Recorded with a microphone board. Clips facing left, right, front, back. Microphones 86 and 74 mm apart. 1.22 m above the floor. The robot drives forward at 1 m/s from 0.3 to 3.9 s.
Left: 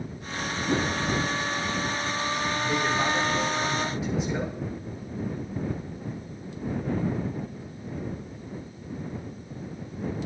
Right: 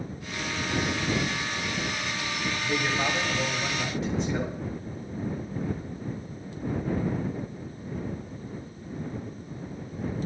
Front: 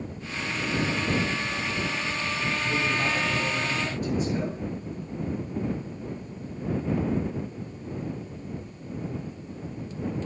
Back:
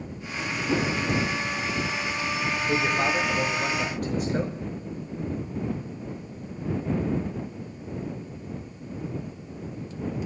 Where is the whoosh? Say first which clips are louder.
Left 4 dB, back 3 dB; 140° left, 0.7 m; by 1.0 s 155° left, 0.9 m.